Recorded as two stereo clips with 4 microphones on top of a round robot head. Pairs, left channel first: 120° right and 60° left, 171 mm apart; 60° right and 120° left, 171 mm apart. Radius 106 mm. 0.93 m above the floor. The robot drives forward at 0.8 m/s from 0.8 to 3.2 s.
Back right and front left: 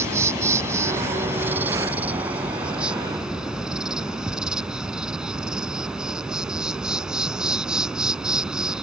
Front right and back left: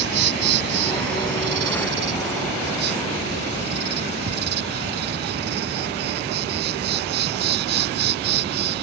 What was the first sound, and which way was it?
An insect, 135° left.